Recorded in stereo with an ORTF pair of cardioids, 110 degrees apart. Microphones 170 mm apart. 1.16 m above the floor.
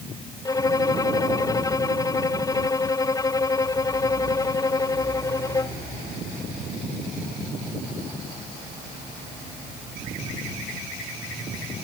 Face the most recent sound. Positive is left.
turn(degrees=20)